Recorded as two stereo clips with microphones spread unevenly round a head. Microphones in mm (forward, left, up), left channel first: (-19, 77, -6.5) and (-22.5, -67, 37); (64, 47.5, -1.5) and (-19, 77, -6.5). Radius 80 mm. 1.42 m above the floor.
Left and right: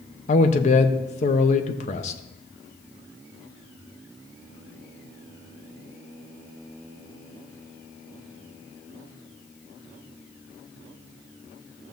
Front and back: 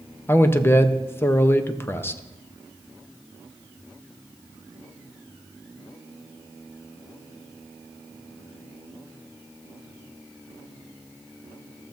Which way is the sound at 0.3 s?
45° left.